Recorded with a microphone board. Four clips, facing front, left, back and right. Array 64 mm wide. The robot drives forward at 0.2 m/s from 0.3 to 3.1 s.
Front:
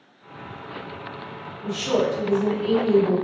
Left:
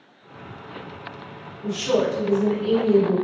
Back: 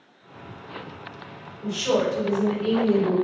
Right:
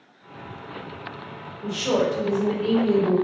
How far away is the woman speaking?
About 1.2 m.